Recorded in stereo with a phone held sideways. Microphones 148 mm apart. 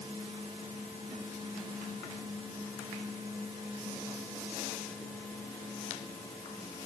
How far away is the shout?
No shout in this recording.